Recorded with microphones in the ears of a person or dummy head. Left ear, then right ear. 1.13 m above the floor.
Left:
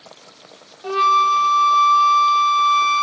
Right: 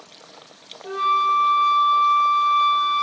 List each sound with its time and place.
0.8 s a flute: 80° left, 0.9 m